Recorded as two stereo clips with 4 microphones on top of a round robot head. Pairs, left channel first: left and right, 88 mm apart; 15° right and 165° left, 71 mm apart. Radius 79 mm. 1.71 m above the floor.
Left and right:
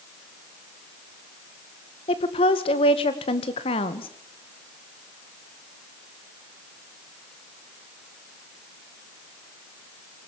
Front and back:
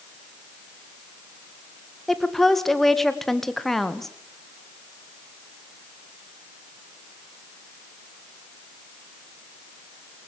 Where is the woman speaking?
70° left, 2.0 m.